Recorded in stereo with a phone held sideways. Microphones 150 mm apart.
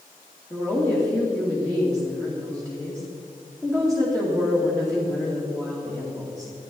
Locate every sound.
0.5 s a woman speaking: 5° left (ahead or behind), 2.5 m